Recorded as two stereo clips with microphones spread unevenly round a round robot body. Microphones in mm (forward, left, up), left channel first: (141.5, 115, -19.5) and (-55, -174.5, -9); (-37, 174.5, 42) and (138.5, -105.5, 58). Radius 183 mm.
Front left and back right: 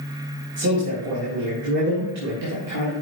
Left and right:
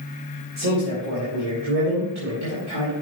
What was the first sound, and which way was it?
A man speaking, 90° right.